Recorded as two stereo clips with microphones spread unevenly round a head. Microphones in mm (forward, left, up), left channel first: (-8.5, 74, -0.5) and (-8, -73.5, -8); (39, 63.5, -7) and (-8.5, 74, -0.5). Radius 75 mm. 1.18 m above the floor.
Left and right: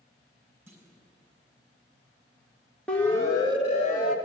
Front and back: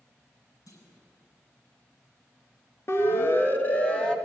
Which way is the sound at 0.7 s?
15° right.